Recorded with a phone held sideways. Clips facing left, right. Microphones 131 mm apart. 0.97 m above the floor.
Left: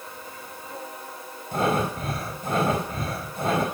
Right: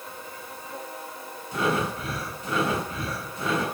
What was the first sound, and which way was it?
Breathing, 50° left (ahead or behind).